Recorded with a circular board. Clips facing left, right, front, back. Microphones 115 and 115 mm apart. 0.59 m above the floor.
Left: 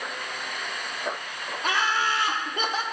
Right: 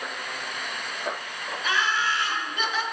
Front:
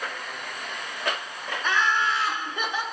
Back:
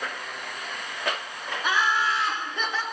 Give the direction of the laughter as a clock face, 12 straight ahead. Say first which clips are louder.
Left 1 dB, even; 8 o'clock.